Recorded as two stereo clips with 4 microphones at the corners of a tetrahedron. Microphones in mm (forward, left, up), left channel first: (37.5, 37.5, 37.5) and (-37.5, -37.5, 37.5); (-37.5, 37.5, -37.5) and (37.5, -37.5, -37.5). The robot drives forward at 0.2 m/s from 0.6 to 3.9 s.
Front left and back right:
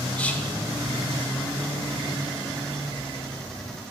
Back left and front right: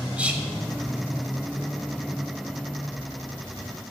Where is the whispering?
Straight ahead, 0.8 m.